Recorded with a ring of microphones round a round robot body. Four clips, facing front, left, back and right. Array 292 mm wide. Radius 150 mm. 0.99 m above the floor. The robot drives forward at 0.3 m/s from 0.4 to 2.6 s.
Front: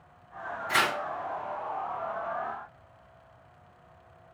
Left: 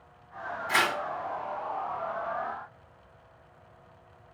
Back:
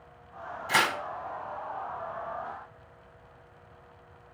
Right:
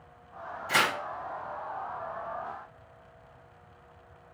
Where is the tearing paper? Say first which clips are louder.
Even, back 1 dB; 175° right, 2 m.